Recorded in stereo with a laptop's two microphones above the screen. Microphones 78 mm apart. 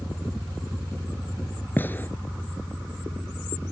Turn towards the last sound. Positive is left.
turn(degrees=25)  # may be behind; listen again after turning